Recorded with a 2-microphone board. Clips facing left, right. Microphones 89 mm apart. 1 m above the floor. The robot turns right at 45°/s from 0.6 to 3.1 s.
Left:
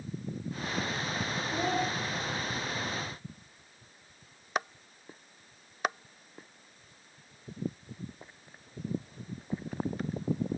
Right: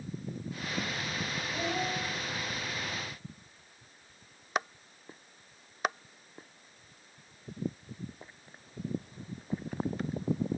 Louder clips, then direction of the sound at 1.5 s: Left 3 dB; 50° left (ahead or behind).